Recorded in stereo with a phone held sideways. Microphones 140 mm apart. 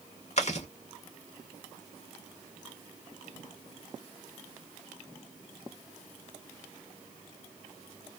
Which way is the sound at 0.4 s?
50° left (ahead or behind).